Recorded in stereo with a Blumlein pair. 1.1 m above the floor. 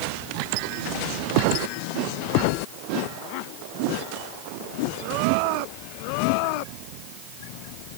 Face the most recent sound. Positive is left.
No sound to turn to.